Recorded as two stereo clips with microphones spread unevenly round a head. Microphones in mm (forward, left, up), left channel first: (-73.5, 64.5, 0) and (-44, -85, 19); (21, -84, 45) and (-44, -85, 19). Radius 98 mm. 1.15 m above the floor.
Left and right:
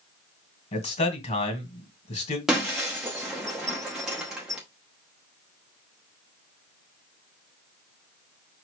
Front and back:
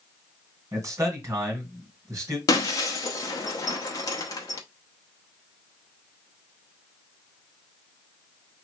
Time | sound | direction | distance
0.7 | a man speaking | 140° left | 1.8 m
2.5 | breaking glass | 5° left | 0.8 m